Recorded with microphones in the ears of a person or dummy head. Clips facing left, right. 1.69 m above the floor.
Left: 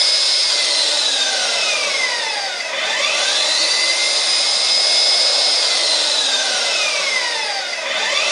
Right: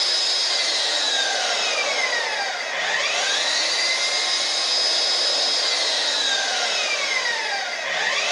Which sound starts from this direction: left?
An engine running, at 0.0 s.